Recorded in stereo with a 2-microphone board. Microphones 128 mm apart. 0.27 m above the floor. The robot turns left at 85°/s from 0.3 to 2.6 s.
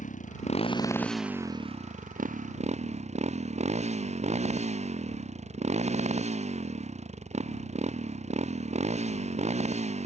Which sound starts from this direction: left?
A motorcycle, at 0.0 s.